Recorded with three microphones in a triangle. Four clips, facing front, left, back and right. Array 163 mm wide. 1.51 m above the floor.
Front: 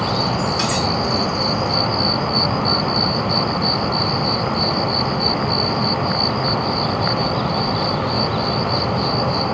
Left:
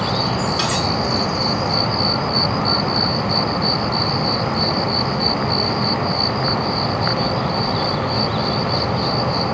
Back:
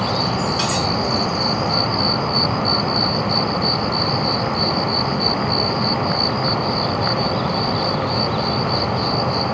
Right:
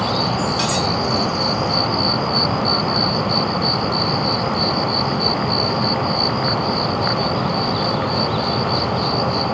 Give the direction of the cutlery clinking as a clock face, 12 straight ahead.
9 o'clock.